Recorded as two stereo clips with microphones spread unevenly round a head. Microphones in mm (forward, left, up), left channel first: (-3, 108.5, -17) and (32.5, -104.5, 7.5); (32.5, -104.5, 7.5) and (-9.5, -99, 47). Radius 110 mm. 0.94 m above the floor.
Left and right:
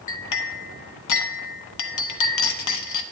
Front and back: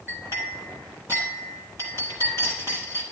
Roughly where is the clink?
Left.